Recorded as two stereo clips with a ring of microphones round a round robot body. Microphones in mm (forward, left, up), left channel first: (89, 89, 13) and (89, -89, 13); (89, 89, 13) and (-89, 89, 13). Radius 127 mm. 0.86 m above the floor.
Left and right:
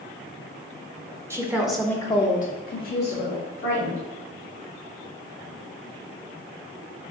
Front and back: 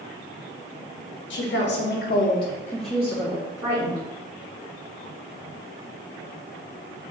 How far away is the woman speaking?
About 1.0 m.